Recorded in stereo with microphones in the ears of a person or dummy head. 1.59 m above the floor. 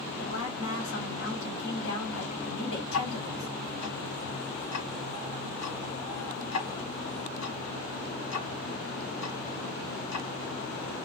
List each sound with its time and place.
0.2 s a woman speaking: 70° left (ahead or behind), 1.4 m
2.9 s ticking: 70° left (ahead or behind), 1.6 m